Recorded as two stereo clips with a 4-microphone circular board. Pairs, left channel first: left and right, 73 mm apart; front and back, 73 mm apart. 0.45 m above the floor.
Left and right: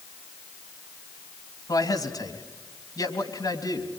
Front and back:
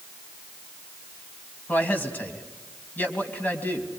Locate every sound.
1.7 s a man speaking: 65° left, 3 m